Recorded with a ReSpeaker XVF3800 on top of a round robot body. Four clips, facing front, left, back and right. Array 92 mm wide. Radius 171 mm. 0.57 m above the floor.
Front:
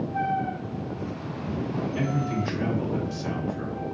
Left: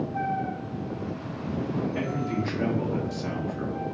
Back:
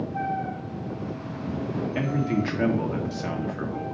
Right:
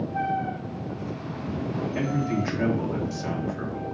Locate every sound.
1.9 s a man speaking: 165° right, 1.2 m